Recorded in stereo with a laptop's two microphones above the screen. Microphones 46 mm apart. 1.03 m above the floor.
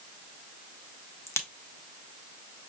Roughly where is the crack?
Left.